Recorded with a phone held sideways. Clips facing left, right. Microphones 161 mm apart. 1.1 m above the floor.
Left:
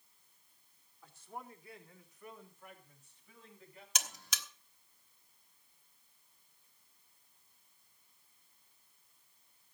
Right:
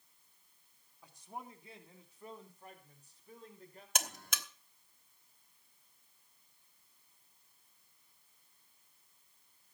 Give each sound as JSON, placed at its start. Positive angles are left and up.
{"t": 1.0, "sound": "a man speaking", "side_deg": -15, "distance_m": 2.5}
{"t": 4.0, "sound": "a buzzer", "side_deg": -55, "distance_m": 1.2}